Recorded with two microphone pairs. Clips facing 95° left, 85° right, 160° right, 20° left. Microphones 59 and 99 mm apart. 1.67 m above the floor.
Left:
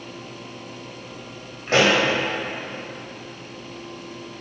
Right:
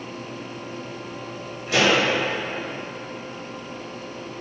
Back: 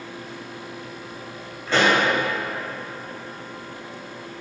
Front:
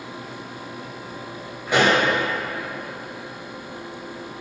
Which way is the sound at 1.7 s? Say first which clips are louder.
Left 2 dB, front 1 dB; 90° left.